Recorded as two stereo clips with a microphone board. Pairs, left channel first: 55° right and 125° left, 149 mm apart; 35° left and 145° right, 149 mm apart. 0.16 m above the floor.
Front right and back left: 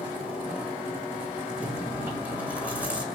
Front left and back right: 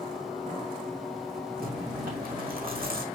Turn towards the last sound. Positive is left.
turn(degrees=-155)